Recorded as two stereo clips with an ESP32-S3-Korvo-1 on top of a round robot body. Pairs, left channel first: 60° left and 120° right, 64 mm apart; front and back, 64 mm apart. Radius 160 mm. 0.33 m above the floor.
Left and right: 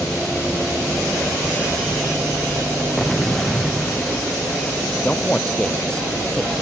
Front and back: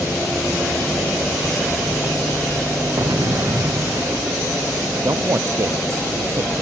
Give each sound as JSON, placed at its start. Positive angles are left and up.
{"t": 3.0, "sound": "an explosion", "azimuth_deg": 145}
{"t": 5.0, "sound": "a man speaking", "azimuth_deg": 140}